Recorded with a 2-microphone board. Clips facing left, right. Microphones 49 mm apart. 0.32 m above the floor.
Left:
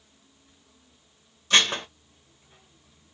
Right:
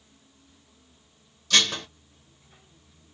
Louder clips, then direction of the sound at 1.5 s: Left 2 dB; 25° left (ahead or behind).